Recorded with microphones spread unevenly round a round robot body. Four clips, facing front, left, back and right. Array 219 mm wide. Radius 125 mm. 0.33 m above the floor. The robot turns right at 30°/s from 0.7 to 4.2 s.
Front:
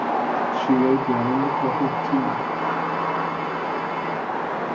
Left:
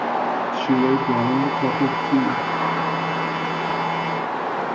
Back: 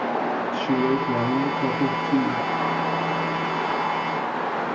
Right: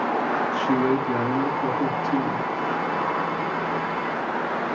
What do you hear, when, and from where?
0.5 s a woman speaking: 35° left, 4.5 m; by 2.5 s 90° left, 4.5 m